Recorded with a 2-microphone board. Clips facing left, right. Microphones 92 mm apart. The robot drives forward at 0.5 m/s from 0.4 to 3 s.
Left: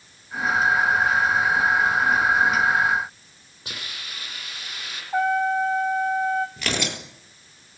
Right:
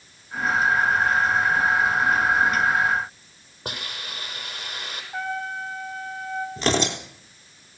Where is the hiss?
45° right (ahead or behind), 6.5 m.